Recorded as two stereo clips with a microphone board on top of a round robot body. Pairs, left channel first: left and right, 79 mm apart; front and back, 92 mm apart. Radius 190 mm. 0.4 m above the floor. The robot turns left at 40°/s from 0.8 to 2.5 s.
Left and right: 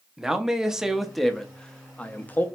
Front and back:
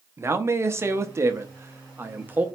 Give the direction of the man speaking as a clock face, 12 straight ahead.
5 o'clock.